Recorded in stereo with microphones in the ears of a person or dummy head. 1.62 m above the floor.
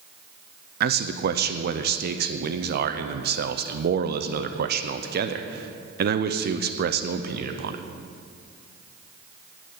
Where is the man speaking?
50° right (ahead or behind), 0.7 m.